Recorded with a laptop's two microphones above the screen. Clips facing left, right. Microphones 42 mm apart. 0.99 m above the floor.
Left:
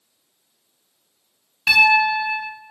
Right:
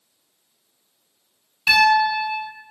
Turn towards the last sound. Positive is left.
turn(degrees=20)  # may be behind; listen again after turning